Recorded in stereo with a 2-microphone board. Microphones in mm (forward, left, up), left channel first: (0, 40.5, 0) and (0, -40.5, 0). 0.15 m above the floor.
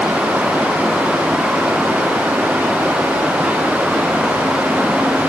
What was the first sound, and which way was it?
Only background noise.